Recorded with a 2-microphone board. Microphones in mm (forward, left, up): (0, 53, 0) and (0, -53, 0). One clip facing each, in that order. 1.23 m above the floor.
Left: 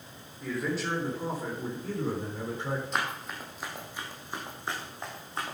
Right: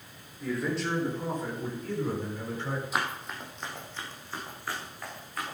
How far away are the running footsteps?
About 3 m.